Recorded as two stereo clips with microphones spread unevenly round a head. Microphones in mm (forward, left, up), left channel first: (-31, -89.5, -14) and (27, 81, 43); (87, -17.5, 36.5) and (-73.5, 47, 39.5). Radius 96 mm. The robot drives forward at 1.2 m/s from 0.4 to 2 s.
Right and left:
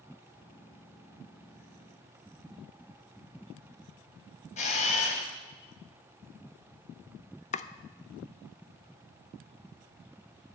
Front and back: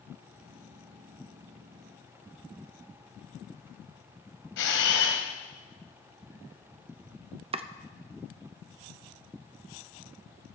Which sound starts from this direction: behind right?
Chopping, at 7.5 s.